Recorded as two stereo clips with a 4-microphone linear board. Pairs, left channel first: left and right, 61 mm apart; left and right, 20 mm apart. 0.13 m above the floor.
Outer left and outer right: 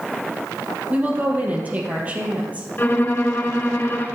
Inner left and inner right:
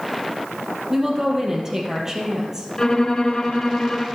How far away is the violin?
About 1.2 m.